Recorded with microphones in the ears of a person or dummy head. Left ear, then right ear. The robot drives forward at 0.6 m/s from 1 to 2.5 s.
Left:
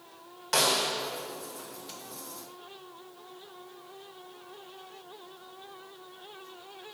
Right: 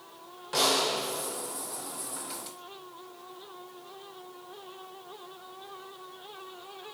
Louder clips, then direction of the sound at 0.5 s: Even; 35° left (ahead or behind).